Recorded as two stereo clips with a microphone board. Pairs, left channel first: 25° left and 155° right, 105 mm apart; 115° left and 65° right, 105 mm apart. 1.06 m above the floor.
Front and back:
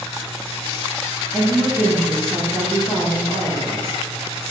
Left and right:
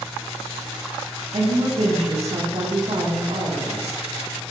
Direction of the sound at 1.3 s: 60° right.